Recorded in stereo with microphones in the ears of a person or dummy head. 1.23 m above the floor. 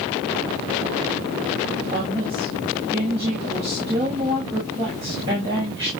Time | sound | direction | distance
1.9 | a woman speaking | 20° right (ahead or behind) | 6 m